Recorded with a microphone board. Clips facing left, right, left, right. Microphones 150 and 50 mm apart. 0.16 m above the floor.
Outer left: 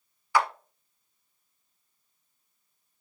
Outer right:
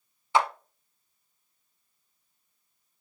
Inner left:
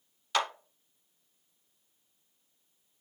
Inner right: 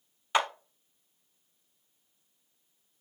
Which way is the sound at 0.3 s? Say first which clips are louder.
Outer right 1 dB, inner right 3 dB; 20° right (ahead or behind).